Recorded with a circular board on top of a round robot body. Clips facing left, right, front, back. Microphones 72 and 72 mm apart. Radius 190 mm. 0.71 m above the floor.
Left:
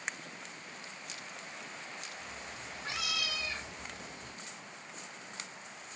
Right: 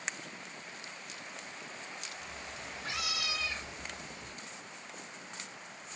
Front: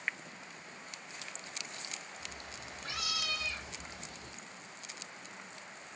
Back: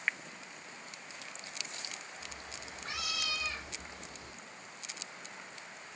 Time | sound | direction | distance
2.2 | a cat meowing | 25° left | 2.5 m